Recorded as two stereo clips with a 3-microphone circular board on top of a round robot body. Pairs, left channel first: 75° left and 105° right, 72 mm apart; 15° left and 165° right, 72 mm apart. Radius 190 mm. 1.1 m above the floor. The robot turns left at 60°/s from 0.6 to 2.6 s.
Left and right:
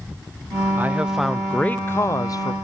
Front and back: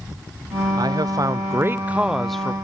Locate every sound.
0.8 s a man speaking: 165° right, 0.6 m; by 2.5 s 90° left, 0.6 m